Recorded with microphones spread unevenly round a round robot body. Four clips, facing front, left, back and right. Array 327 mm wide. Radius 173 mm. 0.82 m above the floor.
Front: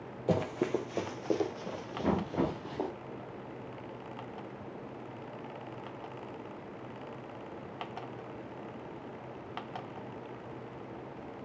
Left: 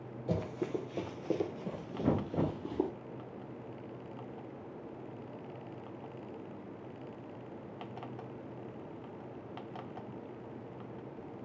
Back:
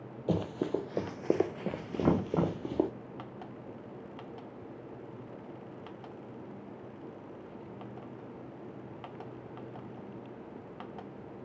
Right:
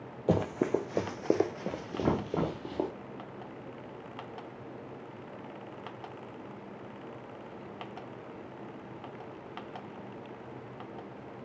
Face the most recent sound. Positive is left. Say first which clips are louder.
# right 1 dB, back 2 dB
turn(degrees=-135)